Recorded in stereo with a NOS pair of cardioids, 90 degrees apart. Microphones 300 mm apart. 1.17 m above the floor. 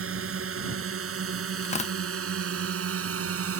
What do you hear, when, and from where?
0.0 s a drone: 45° right; by 3.6 s 50° right
1.6 s tearing paper: 20° left